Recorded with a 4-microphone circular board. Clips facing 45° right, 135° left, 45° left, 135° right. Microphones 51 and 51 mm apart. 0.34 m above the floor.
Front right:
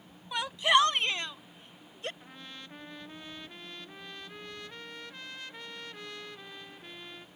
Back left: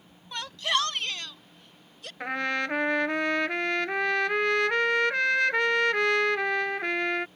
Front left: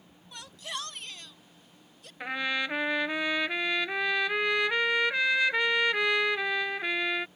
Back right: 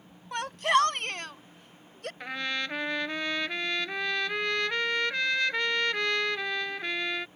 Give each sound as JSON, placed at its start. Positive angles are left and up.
{"t": 0.3, "sound": "a shout", "azimuth_deg": -120}
{"t": 2.2, "sound": "a trumpet", "azimuth_deg": 125}